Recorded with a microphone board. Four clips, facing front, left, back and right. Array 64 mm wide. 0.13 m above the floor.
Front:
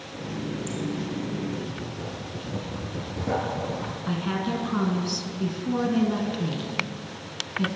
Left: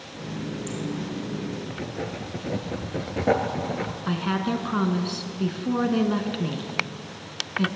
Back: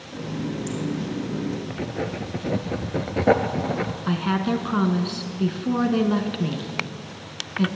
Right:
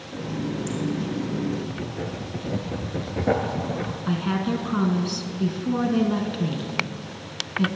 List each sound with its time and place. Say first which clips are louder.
0.1 s a running tap: right 4 dB, back 3 dB; 115° right, 3.5 m
1.7 s writing: right 1 dB, back 6 dB; 170° left, 0.8 m
4.1 s a woman speaking: right 1 dB, back 4 dB; 155° left, 1.1 m